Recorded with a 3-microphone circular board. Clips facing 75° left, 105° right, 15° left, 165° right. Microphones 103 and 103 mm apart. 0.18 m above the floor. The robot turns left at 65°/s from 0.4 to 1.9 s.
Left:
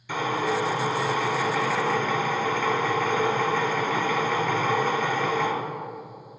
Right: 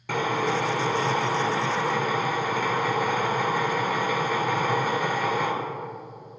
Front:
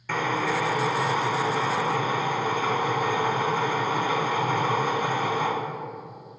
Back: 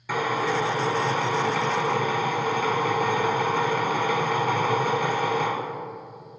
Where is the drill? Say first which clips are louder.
Right 1 dB, back 1 dB; 85° right, 1.2 m; by 5.5 s 175° left, 1.2 m.